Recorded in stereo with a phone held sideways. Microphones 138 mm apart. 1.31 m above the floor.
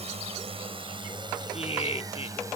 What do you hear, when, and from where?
0.0 s a drone: 45° right (ahead or behind); by 2.6 s 20° right (ahead or behind)
1.5 s laughter: 40° left (ahead or behind)